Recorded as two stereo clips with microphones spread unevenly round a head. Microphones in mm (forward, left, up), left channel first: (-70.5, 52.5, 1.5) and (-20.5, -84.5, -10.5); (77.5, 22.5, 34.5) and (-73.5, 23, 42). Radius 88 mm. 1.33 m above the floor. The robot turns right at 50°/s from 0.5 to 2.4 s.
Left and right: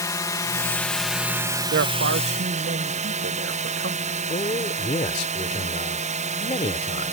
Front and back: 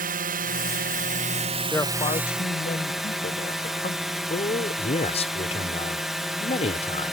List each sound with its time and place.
0.0 s a drone: 175° left; by 7.1 s 90° right
1.7 s a man speaking: 85° right; by 4.2 s 50° right
4.3 s a man speaking: 50° left